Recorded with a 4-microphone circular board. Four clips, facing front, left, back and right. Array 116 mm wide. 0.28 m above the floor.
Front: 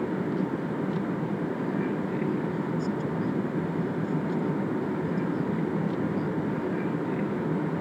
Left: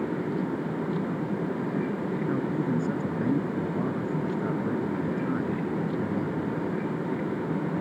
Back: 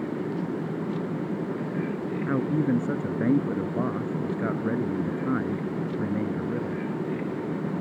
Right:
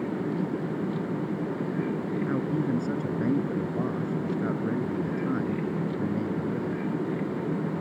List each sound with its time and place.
2.3 s a man speaking: 175° right